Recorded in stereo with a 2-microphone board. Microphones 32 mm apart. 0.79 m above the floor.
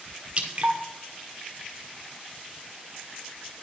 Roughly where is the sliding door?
I don't hear a sliding door.